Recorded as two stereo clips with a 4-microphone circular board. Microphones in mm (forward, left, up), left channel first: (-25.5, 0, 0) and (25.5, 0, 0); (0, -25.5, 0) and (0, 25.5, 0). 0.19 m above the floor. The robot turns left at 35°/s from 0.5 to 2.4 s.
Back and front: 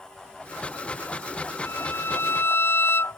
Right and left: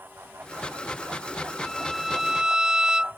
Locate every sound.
1.6 s a violin: 170° right; by 3.2 s 160° left